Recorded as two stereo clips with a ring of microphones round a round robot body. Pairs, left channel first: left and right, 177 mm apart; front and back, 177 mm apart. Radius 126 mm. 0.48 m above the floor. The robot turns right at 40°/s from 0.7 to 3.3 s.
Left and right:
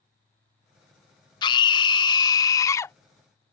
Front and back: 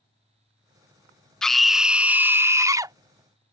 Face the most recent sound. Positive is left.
turn(degrees=160)